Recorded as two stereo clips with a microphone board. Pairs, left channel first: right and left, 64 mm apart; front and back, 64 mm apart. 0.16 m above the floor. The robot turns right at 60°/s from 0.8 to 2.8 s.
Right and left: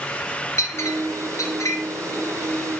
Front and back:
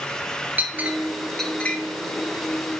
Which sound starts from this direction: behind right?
A clink, at 0.6 s.